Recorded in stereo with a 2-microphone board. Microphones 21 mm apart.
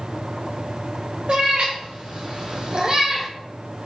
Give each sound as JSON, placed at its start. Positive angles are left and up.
{"t": 1.3, "sound": "a cat meowing", "side_deg": -75, "distance_m": 1.6}